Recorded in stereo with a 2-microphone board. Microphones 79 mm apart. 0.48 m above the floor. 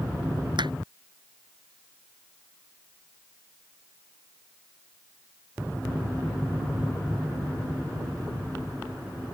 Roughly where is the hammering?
Right.